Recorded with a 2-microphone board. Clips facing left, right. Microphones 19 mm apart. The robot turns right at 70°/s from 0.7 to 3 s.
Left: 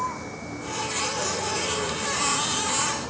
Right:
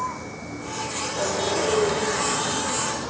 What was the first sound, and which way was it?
A vehicle, centre (ahead or behind).